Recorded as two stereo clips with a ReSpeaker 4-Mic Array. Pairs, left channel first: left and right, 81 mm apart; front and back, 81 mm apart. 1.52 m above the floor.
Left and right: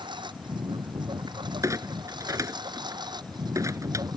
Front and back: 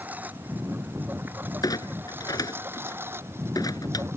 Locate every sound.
0.0 s a lawn mower: 110° right; by 4.2 s 120° right
1.6 s a clunk: 40° right